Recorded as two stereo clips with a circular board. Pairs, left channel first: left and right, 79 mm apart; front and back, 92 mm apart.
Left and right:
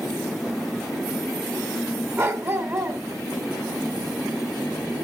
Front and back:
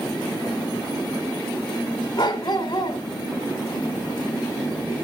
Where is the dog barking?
35° right, 2 m.